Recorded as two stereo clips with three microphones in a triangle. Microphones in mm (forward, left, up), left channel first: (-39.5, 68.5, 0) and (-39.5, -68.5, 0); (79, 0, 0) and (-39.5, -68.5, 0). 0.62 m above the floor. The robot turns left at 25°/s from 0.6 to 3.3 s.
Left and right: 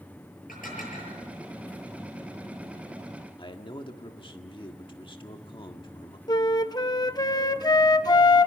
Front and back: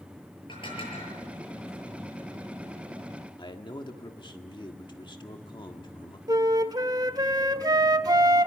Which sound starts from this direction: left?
Dishes clattering, at 0.5 s.